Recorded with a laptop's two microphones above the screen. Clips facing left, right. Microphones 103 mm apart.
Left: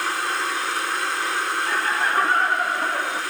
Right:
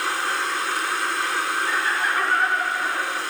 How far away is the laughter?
About 1.6 m.